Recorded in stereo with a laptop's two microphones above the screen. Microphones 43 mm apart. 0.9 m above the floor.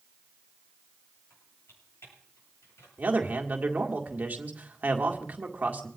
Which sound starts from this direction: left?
Typing on a keyboard, at 1.3 s.